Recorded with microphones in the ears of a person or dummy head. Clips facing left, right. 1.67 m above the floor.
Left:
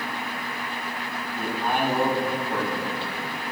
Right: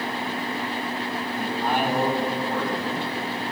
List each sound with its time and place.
1.4 s a man speaking: 20° right (ahead or behind), 2 m